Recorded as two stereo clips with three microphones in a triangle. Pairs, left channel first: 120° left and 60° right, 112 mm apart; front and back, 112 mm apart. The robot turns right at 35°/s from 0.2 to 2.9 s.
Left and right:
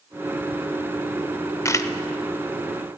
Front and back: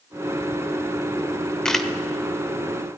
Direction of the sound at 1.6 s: 80° left.